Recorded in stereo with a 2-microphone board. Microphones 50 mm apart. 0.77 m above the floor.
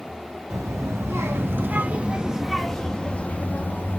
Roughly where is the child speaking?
Right.